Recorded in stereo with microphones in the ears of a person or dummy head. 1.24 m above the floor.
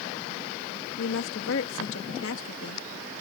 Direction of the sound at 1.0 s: 65° left (ahead or behind).